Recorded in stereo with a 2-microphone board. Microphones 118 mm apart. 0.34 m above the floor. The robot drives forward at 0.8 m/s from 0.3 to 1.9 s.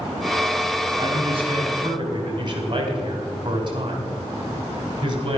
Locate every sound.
1.0 s a man speaking: 55° right (ahead or behind), 2 m; by 5.4 s 45° right (ahead or behind), 2.5 m